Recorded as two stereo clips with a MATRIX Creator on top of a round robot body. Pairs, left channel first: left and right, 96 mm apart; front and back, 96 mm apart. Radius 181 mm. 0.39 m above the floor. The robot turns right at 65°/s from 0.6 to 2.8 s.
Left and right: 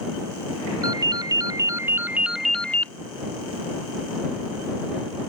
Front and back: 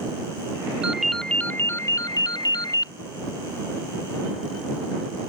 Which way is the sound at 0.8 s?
105° right.